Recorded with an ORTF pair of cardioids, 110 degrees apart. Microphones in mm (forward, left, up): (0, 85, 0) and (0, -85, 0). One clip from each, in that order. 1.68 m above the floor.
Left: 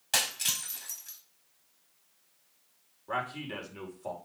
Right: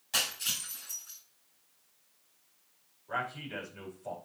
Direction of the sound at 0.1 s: 60° left.